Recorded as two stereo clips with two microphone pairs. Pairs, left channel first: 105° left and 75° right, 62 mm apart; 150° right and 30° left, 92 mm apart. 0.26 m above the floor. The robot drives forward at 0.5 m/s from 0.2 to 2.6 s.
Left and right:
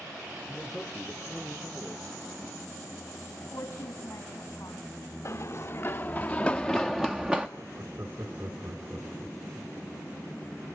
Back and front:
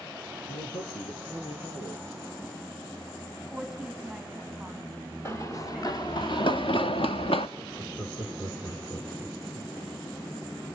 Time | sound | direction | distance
0.5 | a man speaking | 160° right | 4.5 m
3.4 | a woman speaking | 120° left | 2 m
5.2 | running footsteps | 150° left | 1.9 m
7.6 | laughter | 100° right | 3 m